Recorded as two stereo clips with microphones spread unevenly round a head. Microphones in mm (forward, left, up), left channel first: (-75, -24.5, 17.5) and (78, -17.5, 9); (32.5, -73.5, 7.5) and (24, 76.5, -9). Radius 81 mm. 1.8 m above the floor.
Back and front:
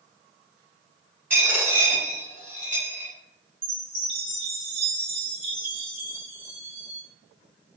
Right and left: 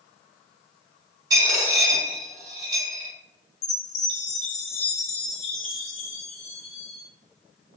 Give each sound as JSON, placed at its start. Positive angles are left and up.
{"t": 1.3, "sound": "a dropped coin", "azimuth_deg": 65, "distance_m": 1.4}
{"t": 3.6, "sound": "a chime", "azimuth_deg": -50, "distance_m": 0.9}